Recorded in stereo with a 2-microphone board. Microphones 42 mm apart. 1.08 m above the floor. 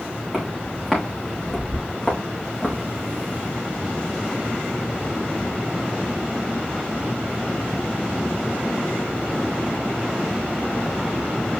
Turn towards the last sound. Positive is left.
turn(degrees=30)  # may be behind; listen again after turning